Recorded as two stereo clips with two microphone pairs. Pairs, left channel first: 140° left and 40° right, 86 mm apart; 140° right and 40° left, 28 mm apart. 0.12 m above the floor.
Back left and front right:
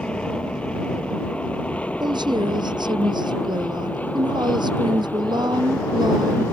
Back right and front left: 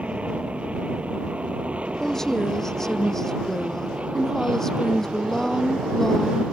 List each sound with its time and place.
0.0 s an aircraft: 60° left; by 6.5 s 70° left
2.0 s a woman speaking: 70° right